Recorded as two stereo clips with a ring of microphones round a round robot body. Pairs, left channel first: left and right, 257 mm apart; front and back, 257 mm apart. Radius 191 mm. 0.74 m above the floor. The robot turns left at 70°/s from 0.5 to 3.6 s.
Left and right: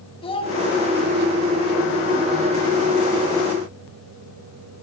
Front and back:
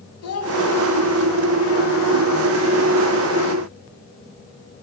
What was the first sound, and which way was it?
A child speaking, 20° left.